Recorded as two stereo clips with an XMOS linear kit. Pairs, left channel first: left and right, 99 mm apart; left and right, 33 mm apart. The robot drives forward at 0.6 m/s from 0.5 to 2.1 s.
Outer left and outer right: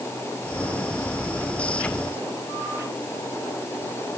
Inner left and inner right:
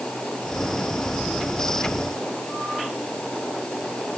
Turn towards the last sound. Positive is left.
No sound to turn to.